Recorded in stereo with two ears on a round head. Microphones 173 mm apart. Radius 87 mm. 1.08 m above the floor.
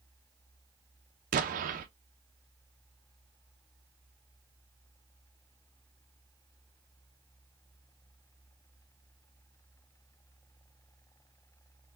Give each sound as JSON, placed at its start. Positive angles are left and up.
{"t": 1.3, "sound": "an explosion", "side_deg": -45, "distance_m": 0.7}